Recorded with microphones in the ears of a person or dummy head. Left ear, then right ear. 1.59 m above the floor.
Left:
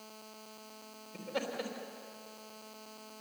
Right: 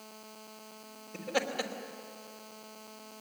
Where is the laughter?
35° right (ahead or behind), 3 m.